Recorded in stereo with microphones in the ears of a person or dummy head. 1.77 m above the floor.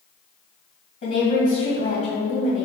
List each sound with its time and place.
1.0 s a woman speaking: 35° left (ahead or behind), 1.9 m